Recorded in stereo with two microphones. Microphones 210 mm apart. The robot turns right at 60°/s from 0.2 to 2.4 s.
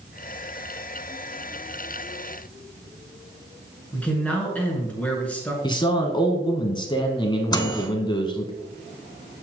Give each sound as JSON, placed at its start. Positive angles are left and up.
{"t": 3.9, "sound": "a man speaking", "side_deg": 5, "distance_m": 2.5}
{"t": 5.6, "sound": "a man speaking", "side_deg": 20, "distance_m": 1.2}
{"t": 7.5, "sound": "a microwave", "side_deg": 20, "distance_m": 0.8}